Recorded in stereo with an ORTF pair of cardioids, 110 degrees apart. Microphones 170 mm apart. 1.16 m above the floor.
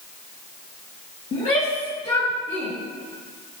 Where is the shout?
45° left, 2.0 m; by 2.7 s 35° left, 3 m.